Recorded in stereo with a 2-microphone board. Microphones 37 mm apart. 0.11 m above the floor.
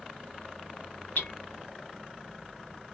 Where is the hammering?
65° left (ahead or behind), 0.8 m.